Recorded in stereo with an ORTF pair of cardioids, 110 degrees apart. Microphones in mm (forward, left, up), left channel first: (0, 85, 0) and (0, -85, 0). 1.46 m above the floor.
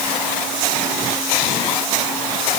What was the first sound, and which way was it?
Only background noise.